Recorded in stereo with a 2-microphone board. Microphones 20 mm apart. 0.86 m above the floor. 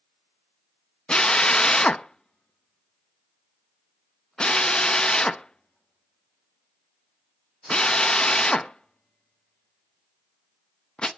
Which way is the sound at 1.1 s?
50° left (ahead or behind).